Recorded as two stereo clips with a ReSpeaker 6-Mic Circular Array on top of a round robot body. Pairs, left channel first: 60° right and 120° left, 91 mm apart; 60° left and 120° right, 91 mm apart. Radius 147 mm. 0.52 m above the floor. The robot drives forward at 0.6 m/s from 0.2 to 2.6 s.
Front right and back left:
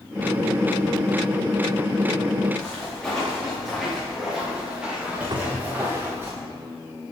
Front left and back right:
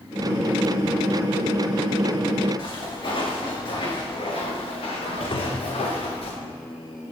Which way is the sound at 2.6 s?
15° left.